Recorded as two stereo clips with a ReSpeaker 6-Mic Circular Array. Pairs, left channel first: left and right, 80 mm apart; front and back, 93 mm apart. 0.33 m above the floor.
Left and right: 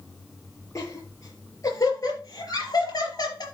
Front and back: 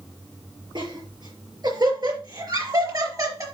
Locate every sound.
0.8 s laughter: 145° left, 5.5 m; by 3.5 s 125° left, 4.5 m